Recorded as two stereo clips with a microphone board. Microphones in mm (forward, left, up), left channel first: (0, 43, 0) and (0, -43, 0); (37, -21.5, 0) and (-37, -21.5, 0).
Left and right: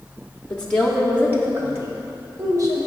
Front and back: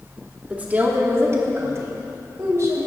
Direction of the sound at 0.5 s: 130° left.